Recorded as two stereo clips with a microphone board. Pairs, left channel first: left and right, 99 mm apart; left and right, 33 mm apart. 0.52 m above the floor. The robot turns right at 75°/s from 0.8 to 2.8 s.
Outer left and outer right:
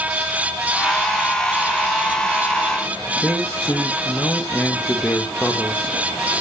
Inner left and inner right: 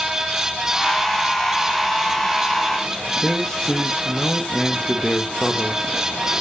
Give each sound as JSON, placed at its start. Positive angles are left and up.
{"t": 3.2, "sound": "a man speaking", "side_deg": 20, "distance_m": 1.5}